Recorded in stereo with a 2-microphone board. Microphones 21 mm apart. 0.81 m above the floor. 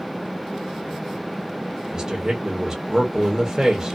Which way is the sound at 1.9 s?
25° right (ahead or behind).